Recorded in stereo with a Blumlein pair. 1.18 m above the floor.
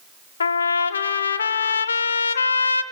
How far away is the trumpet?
About 0.7 m.